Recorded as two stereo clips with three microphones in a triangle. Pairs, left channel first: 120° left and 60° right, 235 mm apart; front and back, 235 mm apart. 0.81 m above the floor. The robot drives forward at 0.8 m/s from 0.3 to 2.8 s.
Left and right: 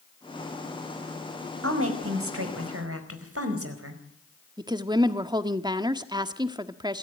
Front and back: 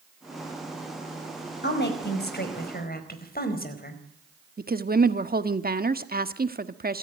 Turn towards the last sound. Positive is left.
turn(degrees=-130)